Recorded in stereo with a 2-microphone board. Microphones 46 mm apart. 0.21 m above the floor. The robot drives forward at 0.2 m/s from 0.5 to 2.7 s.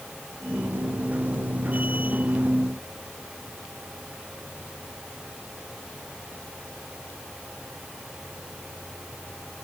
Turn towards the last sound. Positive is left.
No sound to turn to.